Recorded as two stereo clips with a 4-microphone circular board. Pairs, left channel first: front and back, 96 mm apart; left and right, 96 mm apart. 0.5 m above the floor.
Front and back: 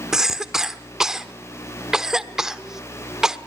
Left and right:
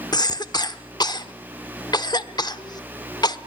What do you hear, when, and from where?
0.1 s a cough: 100° left, 1.1 m